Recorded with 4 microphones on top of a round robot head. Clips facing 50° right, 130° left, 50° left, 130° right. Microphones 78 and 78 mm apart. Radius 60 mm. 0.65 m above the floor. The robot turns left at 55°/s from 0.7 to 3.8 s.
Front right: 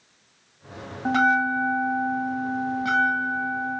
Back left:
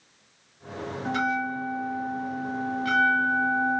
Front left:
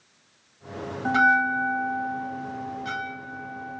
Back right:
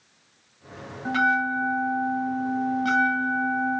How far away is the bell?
About 0.7 m.